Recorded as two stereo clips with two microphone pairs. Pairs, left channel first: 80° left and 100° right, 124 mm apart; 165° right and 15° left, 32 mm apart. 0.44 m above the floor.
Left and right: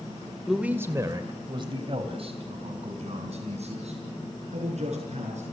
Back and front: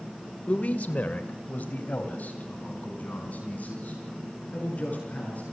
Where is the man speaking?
170° left, 1.3 m; by 5.4 s 125° right, 6.5 m.